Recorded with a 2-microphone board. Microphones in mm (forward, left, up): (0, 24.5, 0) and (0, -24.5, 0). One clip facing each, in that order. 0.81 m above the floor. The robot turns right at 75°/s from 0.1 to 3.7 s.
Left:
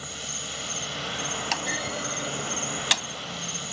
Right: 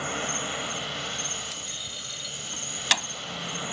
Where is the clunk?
85° left; by 3.1 s 25° right (ahead or behind).